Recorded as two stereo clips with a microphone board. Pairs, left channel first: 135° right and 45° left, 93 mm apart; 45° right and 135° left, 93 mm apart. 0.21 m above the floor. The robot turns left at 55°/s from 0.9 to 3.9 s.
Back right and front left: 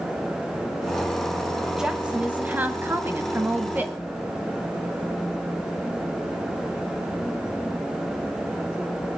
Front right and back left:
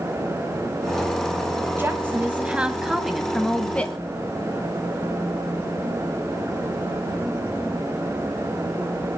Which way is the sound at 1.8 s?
120° left.